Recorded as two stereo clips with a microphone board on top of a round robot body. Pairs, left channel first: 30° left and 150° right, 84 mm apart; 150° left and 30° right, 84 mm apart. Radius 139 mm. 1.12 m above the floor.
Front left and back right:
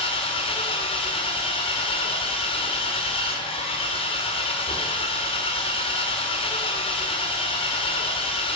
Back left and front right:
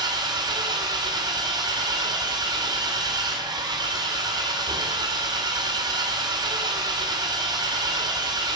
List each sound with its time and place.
0.0 s an engine running: 15° left, 1.6 m